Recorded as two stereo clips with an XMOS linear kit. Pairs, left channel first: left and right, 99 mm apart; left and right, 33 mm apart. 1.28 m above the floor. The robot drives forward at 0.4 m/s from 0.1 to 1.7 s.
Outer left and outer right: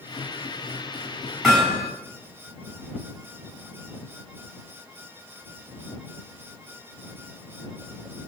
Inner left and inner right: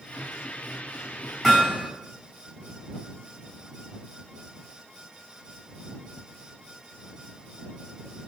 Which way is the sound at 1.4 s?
5° left (ahead or behind).